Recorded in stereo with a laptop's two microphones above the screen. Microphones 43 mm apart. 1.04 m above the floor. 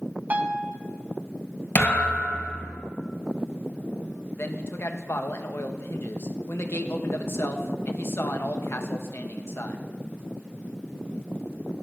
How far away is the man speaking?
About 1.1 m.